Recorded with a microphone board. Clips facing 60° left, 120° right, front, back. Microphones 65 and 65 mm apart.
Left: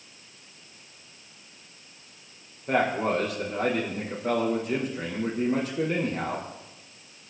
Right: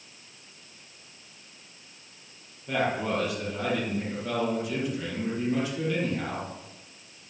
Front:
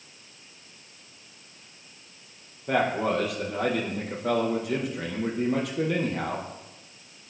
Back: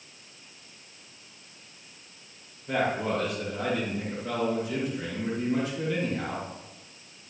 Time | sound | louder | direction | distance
2.7 | a man speaking | left 3 dB, front 3 dB | 15° left | 6.5 m